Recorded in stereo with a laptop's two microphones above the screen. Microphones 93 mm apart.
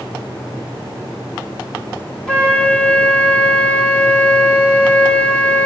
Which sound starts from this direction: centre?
A flute, at 2.3 s.